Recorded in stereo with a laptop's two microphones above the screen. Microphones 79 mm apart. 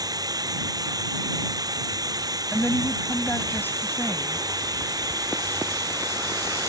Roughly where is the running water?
Right.